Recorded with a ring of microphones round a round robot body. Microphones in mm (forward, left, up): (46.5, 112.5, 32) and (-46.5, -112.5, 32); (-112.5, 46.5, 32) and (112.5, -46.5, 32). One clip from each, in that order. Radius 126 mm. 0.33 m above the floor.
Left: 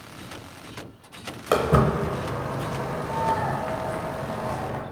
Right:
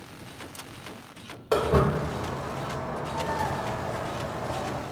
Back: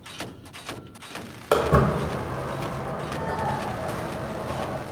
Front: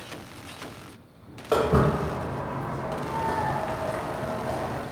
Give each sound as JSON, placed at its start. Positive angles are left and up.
{"t": 1.5, "sound": "footsteps", "azimuth_deg": 130, "distance_m": 1.1}